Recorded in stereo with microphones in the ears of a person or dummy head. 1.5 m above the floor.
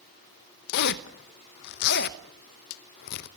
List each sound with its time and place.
0.7 s a zipper: 55° left (ahead or behind), 0.9 m